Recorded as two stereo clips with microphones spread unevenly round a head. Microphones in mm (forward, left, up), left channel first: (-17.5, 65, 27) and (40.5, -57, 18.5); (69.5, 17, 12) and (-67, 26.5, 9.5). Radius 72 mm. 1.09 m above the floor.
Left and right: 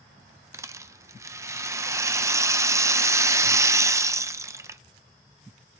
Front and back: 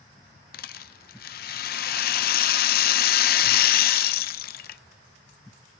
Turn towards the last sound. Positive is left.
turn(degrees=5)